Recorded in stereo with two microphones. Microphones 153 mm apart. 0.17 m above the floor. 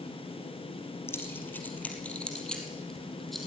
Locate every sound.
1.1 s keys jangling: 15° left (ahead or behind), 3 m; by 3.5 s centre (ahead or behind), 4.5 m